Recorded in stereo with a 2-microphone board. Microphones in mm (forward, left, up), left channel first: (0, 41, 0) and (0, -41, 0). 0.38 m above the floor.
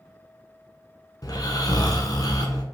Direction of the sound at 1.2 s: 50° left (ahead or behind).